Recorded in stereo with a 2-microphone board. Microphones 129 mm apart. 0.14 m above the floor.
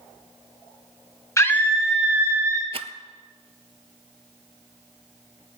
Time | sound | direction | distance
1.4 | a scream | 25° left (ahead or behind) | 1.4 m
2.7 | a rattle | 50° right (ahead or behind) | 0.5 m